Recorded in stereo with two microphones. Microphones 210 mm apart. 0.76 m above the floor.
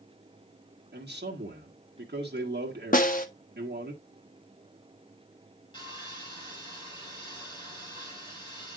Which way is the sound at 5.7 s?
20° left (ahead or behind).